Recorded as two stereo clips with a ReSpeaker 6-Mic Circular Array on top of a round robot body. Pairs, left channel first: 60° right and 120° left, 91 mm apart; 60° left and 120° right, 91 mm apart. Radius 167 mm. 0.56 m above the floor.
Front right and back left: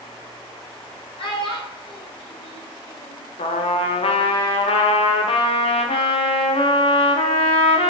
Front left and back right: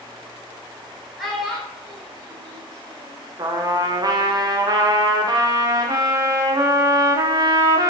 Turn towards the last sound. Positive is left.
turn(degrees=-70)